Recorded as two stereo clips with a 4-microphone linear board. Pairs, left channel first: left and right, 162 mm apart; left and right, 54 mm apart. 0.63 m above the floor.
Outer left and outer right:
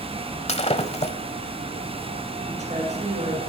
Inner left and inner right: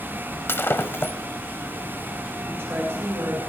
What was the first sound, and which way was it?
Breaking glass, 40° left (ahead or behind).